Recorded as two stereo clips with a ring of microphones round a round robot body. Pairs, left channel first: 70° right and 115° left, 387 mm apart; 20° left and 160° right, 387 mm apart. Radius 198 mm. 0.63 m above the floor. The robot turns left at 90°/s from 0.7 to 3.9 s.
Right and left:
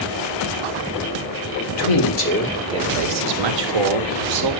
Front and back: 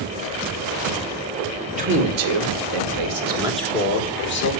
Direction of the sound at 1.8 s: 85° right.